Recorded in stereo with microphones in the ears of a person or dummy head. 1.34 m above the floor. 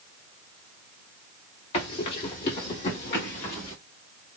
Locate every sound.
1.7 s running footsteps: 35° left (ahead or behind), 1.7 m; by 3.8 s 20° left (ahead or behind), 1.4 m